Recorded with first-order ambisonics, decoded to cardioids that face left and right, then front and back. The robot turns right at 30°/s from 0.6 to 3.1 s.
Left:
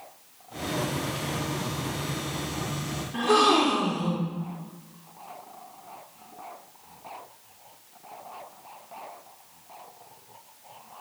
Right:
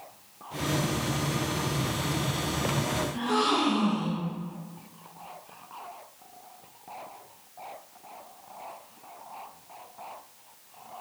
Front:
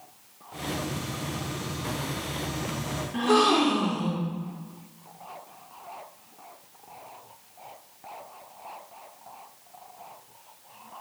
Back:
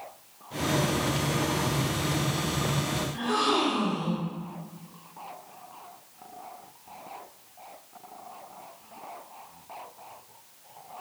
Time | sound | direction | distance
3.1 | a gasp | 40° left | 1.4 m